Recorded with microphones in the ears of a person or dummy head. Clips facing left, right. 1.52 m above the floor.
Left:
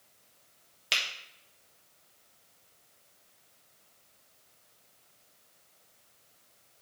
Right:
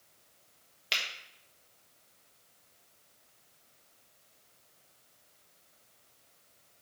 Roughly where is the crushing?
I don't hear crushing.